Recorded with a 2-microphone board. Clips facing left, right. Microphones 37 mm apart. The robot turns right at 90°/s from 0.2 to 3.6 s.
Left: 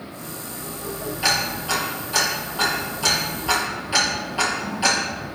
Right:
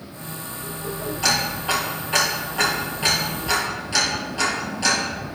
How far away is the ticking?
About 5 m.